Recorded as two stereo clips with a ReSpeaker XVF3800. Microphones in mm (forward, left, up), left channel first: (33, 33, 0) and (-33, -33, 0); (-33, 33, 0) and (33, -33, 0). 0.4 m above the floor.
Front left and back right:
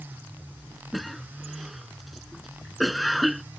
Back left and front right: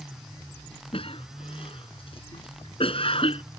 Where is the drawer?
I don't hear a drawer.